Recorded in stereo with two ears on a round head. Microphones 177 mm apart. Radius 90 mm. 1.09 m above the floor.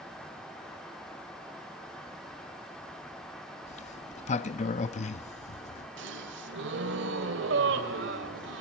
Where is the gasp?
60° right (ahead or behind), 1.7 m.